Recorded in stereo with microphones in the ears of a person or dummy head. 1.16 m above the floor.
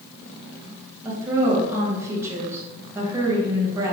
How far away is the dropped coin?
I don't hear a dropped coin.